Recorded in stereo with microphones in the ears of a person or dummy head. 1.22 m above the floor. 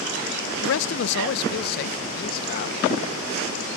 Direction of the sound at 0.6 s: 70° left (ahead or behind).